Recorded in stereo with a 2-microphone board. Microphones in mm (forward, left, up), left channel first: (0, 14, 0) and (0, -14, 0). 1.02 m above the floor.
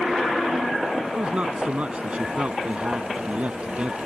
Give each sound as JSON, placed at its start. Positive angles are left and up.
{"t": 1.1, "sound": "a man speaking", "side_deg": -45}